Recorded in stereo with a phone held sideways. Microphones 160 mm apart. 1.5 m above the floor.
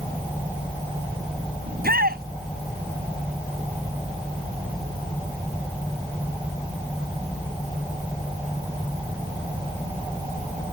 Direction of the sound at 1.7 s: 75° right (ahead or behind).